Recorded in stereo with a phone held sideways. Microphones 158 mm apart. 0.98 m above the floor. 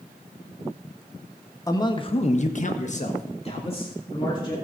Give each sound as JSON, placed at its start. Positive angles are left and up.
{"t": 1.7, "sound": "a man speaking", "side_deg": 20, "distance_m": 1.6}